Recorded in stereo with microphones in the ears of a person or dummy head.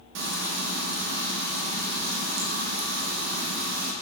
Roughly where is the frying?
Right.